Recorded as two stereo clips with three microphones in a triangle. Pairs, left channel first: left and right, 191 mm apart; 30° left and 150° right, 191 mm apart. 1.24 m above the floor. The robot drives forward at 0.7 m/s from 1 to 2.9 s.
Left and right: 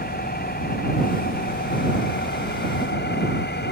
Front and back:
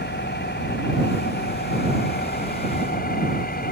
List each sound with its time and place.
0.0 s an engine running: 55° left; by 3.7 s 65° left